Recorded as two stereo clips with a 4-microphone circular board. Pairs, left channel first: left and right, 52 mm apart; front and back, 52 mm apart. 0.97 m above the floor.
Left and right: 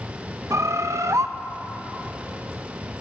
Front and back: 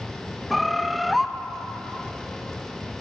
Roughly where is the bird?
Right.